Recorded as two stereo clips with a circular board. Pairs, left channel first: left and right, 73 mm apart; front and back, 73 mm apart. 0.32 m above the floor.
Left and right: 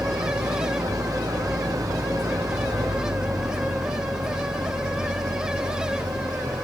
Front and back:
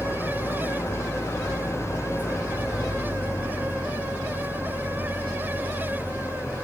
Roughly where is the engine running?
Ahead right.